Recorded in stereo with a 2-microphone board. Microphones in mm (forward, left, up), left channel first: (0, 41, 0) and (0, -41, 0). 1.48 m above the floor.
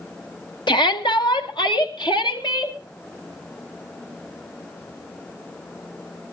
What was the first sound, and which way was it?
A shout, 70° left (ahead or behind).